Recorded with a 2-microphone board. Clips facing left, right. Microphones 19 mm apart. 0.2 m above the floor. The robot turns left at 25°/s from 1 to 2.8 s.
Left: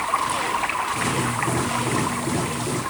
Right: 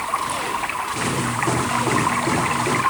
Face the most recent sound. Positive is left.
turn(degrees=-40)